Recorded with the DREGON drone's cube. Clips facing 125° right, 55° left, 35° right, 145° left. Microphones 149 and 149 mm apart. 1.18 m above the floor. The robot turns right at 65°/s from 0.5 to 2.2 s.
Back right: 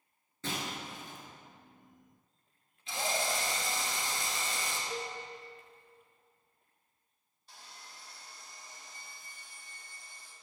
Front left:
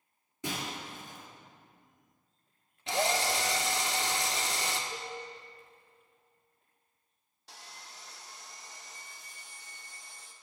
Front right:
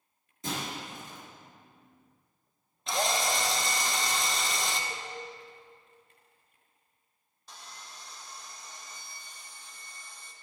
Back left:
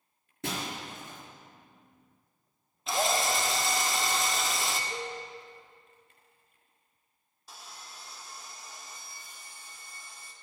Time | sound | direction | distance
0.4 | breaking glass | 130° left | 3.5 m
2.9 | a drill | 60° left | 0.8 m
4.9 | a cowbell | 85° right | 2.5 m
7.5 | sawing | 60° left | 0.8 m